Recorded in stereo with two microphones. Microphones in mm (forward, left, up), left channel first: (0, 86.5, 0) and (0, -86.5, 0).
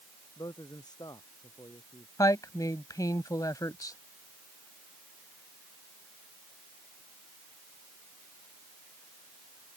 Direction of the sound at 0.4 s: 25° left (ahead or behind).